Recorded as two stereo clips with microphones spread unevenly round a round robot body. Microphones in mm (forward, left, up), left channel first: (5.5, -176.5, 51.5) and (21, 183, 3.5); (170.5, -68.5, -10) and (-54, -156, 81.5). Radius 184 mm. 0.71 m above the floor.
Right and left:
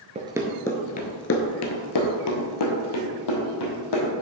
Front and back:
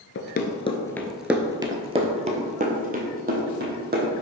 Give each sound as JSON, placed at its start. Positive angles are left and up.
{"t": 0.1, "sound": "running footsteps", "azimuth_deg": 25, "distance_m": 0.7}